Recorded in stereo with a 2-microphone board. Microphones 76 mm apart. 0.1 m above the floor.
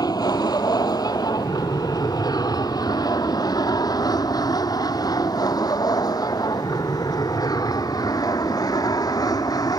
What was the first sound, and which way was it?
An aircraft, 55° left (ahead or behind).